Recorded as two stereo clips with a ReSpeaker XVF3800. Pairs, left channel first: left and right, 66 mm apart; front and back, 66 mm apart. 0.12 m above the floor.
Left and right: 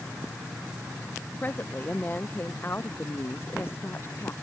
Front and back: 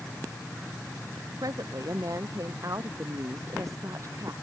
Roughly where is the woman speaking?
Behind left.